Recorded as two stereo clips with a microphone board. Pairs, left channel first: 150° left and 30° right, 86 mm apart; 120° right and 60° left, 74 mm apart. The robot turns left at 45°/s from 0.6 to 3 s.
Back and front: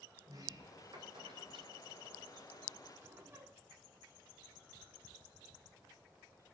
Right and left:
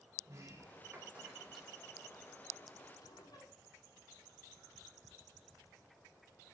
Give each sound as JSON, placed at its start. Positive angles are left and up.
{"t": 0.2, "sound": "a sliding door", "azimuth_deg": 20, "distance_m": 4.5}